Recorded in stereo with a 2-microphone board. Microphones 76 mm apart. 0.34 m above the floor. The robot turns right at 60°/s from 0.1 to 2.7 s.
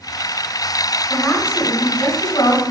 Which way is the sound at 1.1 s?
15° left.